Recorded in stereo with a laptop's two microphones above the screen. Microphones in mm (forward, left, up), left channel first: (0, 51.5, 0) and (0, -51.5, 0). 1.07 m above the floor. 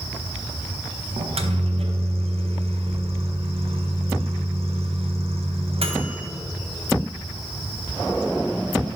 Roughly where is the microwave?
Right.